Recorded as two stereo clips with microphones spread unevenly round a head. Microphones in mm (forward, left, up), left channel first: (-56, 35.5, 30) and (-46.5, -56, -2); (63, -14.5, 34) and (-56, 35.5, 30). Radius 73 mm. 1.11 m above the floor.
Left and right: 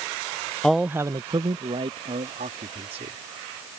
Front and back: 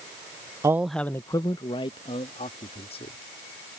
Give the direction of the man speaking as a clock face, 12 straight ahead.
5 o'clock.